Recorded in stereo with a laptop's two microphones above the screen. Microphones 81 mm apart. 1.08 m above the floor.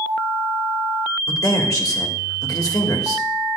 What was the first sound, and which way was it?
A man speaking, 50° left (ahead or behind).